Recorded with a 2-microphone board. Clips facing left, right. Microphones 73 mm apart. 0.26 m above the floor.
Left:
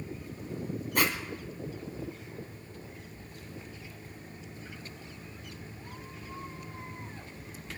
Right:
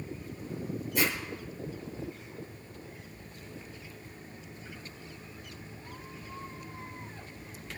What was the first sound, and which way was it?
A zipper, 60° left (ahead or behind).